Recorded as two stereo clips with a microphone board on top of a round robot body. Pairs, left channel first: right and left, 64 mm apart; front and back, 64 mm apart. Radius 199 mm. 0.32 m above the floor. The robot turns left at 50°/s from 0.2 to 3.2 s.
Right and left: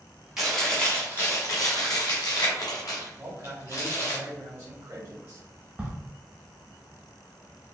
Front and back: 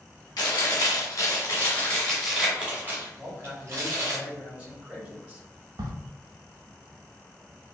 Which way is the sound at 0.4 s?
5° left.